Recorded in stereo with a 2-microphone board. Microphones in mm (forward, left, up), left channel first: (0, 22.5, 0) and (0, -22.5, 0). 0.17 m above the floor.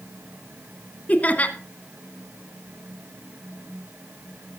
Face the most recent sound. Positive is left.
turn(degrees=35)  # may be behind; listen again after turning